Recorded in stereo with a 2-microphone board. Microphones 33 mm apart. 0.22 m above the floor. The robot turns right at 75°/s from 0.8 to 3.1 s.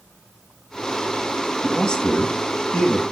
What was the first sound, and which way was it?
A man speaking, 15° left.